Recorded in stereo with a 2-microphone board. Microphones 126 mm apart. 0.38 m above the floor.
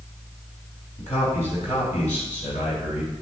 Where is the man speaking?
70° left (ahead or behind), 3.5 m; by 3.1 s 75° left (ahead or behind), 5 m.